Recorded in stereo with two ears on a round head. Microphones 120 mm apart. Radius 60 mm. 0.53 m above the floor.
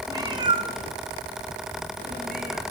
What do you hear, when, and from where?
0.1 s a cat meowing: 25° right (ahead or behind), 1.6 m; by 2.6 s 65° right (ahead or behind), 3.5 m